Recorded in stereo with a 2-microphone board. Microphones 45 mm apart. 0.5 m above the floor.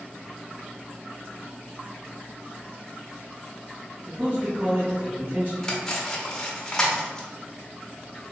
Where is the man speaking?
50° right (ahead or behind), 1.9 m.